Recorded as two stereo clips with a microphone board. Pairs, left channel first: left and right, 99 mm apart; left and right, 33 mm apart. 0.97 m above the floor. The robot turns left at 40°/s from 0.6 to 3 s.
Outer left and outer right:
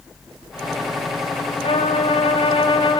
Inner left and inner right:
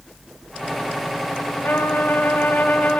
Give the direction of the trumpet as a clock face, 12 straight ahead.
8 o'clock.